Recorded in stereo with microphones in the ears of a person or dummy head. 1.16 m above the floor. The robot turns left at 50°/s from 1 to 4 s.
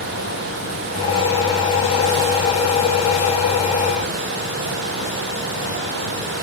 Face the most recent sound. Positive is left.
No sound to turn to.